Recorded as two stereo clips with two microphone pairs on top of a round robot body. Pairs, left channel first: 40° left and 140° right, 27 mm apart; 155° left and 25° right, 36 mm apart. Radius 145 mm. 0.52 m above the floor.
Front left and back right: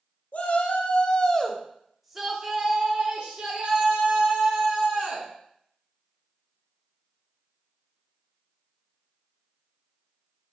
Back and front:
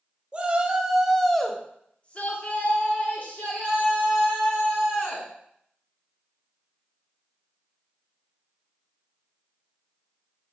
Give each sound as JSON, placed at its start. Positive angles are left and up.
{"t": 0.3, "sound": "a shout", "azimuth_deg": 40, "distance_m": 1.0}